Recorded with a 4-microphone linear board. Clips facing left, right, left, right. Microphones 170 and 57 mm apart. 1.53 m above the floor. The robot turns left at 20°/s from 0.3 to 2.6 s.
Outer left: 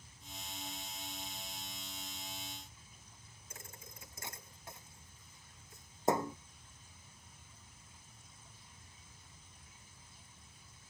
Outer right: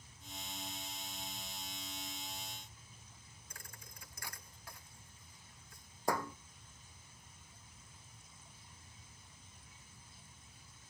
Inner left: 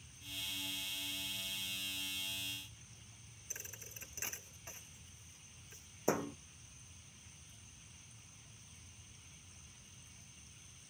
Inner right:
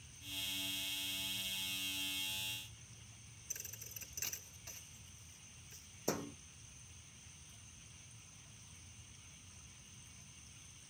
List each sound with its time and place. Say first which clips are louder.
3.5 s a thud: outer left 4 dB, inner left 4 dB; 25° left (ahead or behind)